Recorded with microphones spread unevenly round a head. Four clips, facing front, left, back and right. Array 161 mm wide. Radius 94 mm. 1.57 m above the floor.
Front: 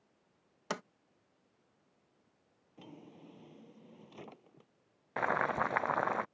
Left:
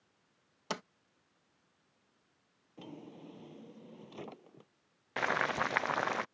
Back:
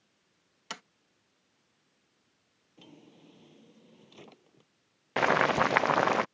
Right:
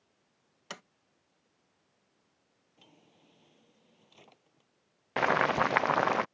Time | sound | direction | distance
0.7 | a sliding door | 40° left | ?
2.8 | a drawer | 90° left | ?
5.2 | boiling | 155° right | ?